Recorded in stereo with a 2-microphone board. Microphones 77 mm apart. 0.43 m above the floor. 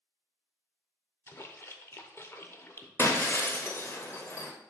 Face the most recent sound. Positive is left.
turn(degrees=35)  # may be behind; listen again after turning